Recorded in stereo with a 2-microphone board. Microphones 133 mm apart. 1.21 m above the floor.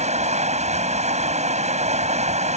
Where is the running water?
60° right (ahead or behind).